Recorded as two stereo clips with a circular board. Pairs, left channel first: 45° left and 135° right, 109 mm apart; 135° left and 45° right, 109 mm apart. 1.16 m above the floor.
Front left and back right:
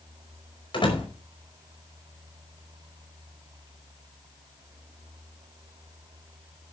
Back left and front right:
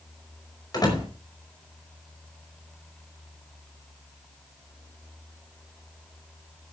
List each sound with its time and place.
0.7 s a door slam: 85° left, 5 m